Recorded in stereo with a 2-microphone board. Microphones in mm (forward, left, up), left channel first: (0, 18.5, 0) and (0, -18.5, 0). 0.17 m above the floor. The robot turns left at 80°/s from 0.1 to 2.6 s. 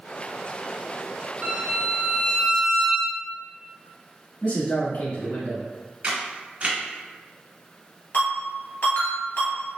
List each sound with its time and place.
1.4 s a violin: 90° right, 1.4 m; by 3.1 s 175° left, 1.4 m
4.4 s a man speaking: 45° left (ahead or behind), 1.8 m
6.0 s a camera shutter: 35° right (ahead or behind), 1.6 m
8.1 s a ringtone: 65° left (ahead or behind), 1.9 m